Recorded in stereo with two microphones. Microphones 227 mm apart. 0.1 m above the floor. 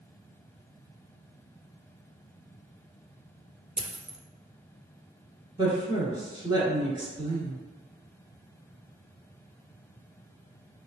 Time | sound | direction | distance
3.8 | a dropped coin | 30° right (ahead or behind) | 0.5 m
5.6 | a woman speaking | 20° right (ahead or behind) | 1.3 m